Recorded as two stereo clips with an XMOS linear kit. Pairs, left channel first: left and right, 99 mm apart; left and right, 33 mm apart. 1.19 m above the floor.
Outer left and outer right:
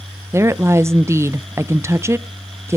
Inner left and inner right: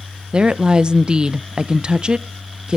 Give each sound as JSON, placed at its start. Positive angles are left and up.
{"t": 0.3, "sound": "a woman speaking", "side_deg": -25, "distance_m": 0.6}